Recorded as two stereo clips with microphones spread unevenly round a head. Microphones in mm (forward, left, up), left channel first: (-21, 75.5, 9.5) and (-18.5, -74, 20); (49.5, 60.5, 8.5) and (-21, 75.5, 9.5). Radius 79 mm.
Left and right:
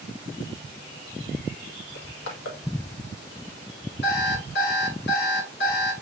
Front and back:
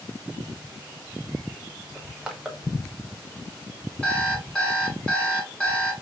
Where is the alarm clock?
65° left, 1.6 m.